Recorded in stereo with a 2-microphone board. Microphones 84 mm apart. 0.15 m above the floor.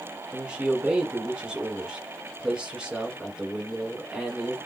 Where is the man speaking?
10° right (ahead or behind), 1.5 m.